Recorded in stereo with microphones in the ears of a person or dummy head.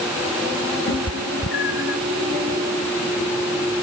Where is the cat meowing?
60° left (ahead or behind); by 2.0 s 65° left (ahead or behind).